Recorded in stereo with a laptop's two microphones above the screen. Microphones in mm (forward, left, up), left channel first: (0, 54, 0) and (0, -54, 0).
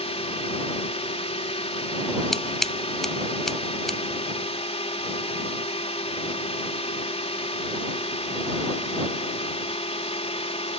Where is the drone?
70° left (ahead or behind).